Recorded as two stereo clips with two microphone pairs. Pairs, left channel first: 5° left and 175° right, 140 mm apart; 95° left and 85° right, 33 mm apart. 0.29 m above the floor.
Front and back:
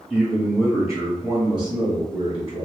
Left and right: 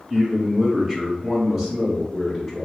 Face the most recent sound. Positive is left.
turn(degrees=-170)